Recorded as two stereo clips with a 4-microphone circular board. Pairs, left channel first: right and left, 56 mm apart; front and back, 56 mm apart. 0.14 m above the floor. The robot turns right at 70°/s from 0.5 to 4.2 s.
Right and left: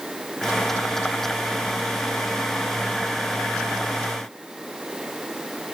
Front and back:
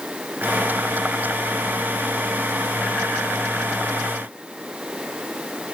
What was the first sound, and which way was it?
Only background noise.